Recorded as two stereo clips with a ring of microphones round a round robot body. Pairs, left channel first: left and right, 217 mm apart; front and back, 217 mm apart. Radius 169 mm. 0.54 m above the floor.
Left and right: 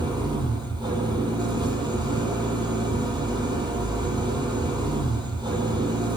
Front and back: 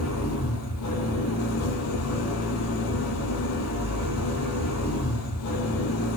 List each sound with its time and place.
0.0 s an engine running: 20° right, 9 m